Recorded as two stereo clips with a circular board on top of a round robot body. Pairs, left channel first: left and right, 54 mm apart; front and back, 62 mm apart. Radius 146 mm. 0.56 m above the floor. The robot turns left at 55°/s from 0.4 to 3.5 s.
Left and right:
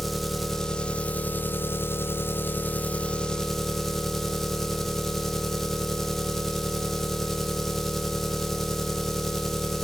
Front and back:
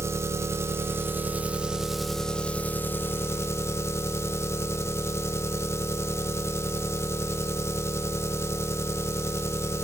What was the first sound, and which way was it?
An engine running, straight behind.